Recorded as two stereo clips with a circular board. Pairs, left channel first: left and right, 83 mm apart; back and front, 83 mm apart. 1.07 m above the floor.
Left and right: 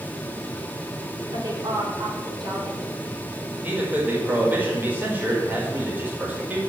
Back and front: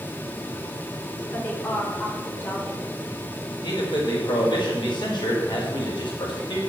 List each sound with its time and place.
1.3 s a woman speaking: 115° right, 4 m
3.6 s a man speaking: 155° right, 5 m